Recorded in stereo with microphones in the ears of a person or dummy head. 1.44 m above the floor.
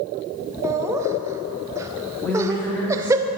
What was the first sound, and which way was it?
Laughter, 15° right (ahead or behind).